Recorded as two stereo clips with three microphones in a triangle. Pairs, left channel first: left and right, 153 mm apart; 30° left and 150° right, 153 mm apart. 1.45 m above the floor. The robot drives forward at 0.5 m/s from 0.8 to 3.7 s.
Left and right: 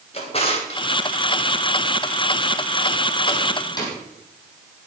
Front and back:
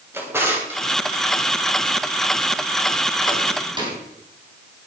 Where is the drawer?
135° left, 2.5 m; by 4.0 s 150° left, 4 m.